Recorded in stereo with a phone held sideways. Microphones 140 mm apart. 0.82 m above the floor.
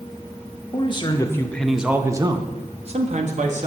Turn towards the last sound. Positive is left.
turn(degrees=-60)  # may be behind; listen again after turning